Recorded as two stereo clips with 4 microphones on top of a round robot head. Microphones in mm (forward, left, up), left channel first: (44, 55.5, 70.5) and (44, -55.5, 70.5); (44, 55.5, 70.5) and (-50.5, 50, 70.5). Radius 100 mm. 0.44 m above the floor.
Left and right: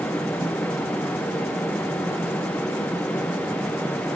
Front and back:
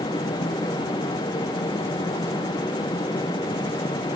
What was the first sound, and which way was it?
Only background noise.